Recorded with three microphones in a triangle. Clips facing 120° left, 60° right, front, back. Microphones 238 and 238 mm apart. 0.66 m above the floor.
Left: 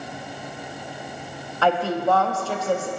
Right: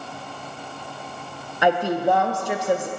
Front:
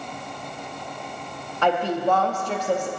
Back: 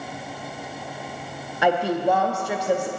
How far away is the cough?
I don't hear a cough.